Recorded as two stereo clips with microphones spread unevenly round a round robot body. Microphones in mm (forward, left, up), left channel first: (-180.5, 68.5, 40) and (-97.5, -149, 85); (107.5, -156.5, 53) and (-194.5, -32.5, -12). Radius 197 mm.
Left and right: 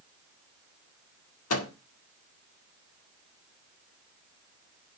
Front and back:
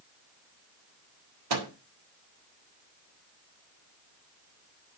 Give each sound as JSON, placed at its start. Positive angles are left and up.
{"t": 1.5, "sound": "a microwave", "azimuth_deg": 125, "distance_m": 2.0}